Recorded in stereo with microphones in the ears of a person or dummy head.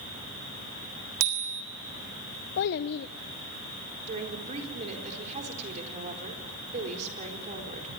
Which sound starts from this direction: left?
A child speaking, at 2.6 s.